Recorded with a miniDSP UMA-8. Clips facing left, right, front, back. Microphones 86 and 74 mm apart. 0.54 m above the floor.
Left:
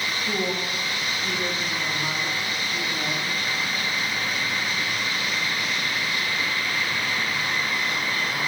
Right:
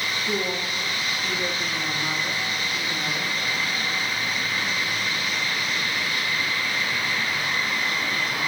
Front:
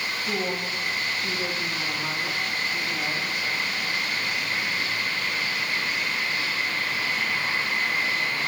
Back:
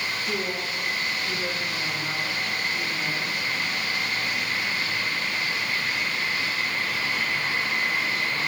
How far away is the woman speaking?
About 2.5 m.